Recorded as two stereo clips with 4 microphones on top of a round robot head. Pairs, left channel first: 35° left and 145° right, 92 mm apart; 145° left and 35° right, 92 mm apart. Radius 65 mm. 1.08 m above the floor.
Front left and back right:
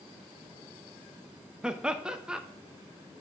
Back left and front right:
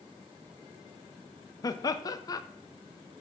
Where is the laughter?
140° left, 0.6 m.